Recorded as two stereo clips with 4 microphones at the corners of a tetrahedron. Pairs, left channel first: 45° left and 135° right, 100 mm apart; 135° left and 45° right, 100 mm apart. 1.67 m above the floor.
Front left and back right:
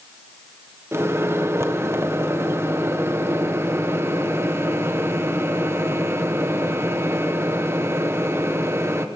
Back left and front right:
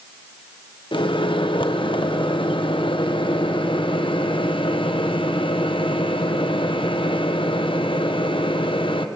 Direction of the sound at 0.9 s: 160° left.